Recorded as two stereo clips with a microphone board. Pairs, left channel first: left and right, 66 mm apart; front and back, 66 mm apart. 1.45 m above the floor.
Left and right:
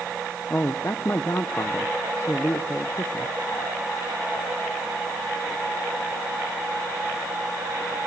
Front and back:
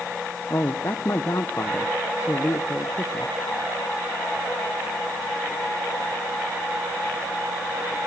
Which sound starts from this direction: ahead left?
A man speaking, at 0.5 s.